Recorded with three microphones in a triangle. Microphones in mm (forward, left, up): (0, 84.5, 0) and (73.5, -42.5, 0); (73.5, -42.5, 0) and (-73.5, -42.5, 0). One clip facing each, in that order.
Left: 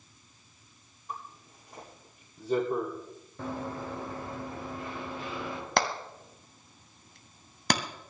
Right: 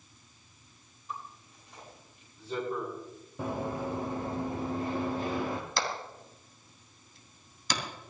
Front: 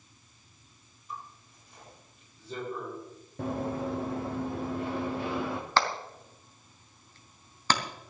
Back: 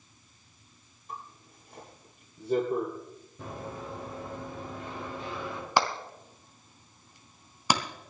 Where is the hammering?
105° left, 2 m.